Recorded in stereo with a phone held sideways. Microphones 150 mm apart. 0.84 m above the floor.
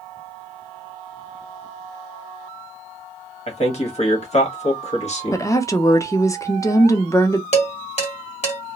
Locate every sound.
3.5 s a man speaking: 50° left (ahead or behind), 1.3 m
5.3 s a woman speaking: 20° left (ahead or behind), 0.6 m
7.5 s dishes clattering: 45° left (ahead or behind), 1.4 m